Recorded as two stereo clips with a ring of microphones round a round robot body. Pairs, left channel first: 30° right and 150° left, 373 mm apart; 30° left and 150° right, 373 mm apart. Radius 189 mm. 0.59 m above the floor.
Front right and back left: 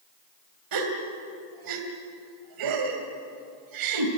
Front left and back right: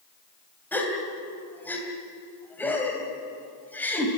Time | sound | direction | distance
0.7 | a gasp | 115° left | 2.5 m